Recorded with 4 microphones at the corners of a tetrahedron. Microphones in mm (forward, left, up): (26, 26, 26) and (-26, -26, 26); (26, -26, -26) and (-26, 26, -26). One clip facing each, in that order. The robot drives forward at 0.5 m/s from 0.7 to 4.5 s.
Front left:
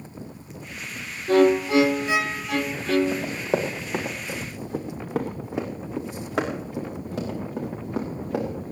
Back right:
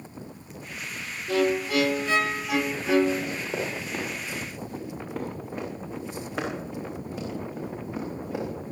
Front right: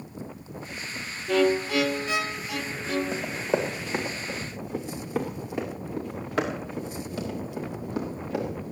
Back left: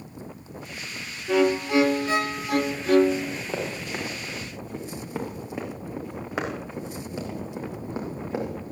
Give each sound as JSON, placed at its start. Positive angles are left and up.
{"t": 1.3, "sound": "a violin", "azimuth_deg": 55, "distance_m": 0.6}
{"t": 3.1, "sound": "running footsteps", "azimuth_deg": 25, "distance_m": 5.0}